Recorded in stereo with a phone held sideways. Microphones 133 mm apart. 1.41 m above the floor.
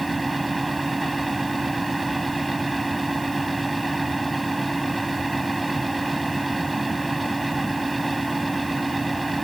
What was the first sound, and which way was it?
A fan, centre (ahead or behind).